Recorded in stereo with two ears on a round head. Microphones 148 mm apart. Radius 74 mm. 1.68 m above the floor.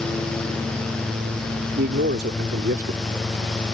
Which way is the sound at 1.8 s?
65° right (ahead or behind).